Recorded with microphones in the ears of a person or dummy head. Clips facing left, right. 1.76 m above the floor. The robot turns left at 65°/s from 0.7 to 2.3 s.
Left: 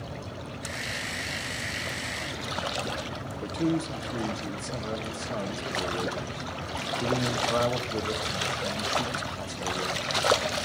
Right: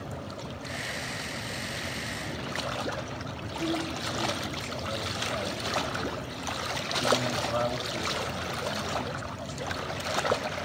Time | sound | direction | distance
3.4 | a man speaking | 55° left (ahead or behind) | 1.6 m